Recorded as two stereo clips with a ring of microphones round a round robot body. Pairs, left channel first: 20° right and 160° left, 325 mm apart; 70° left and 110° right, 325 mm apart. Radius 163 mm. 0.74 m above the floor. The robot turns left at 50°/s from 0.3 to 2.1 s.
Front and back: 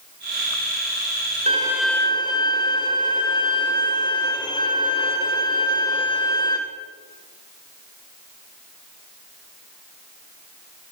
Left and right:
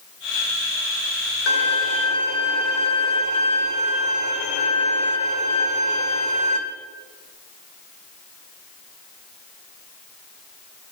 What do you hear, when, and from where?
1.5 s a violin: 85° left, 1.8 m; by 6.6 s 55° left, 1.8 m